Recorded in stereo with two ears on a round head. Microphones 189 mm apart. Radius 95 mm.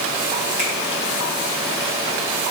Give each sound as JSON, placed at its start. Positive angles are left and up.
{"t": 0.6, "sound": "a finger snap", "side_deg": 5, "distance_m": 8.0}